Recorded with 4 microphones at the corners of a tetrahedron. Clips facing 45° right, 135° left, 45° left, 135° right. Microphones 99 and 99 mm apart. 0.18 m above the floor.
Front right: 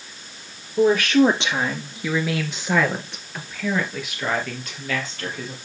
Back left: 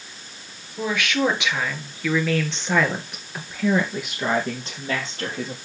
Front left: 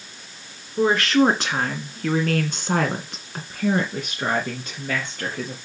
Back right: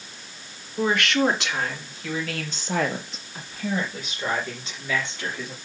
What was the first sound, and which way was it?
A woman speaking, 5° right.